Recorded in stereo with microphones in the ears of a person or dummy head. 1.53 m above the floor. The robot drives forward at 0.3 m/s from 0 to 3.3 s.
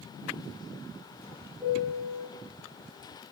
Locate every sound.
1.6 s a piano: 5° right (ahead or behind), 0.7 m